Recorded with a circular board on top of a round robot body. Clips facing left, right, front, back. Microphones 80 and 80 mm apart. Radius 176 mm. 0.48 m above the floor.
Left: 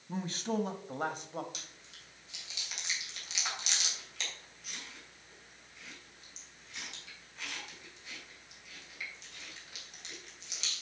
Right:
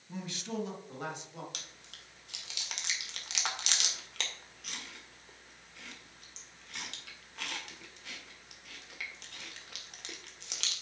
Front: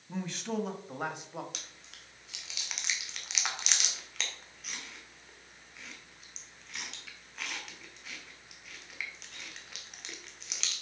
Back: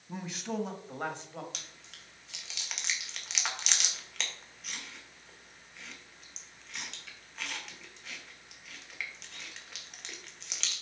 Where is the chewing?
85° right, 2.0 m.